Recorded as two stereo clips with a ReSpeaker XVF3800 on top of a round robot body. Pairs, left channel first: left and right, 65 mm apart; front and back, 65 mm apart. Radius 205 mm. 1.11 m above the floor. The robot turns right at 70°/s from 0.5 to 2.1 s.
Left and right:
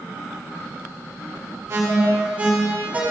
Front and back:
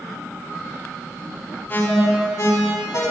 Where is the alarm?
50° right, 5.5 m; by 3.0 s 25° right, 5.5 m.